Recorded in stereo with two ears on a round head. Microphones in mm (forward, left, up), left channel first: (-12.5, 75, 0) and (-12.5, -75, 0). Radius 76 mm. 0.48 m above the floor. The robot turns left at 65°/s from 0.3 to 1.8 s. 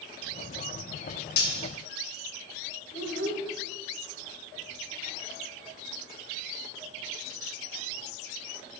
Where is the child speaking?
70° left (ahead or behind), 1.4 m.